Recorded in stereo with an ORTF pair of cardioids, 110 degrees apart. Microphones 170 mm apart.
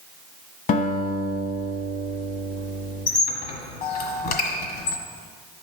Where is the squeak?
65° left, 1.7 m.